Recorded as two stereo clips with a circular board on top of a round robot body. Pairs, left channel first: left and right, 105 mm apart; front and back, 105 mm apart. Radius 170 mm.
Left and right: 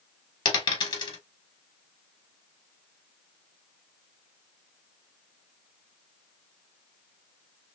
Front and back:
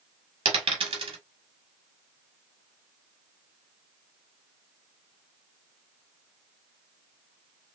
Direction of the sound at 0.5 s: 140° left.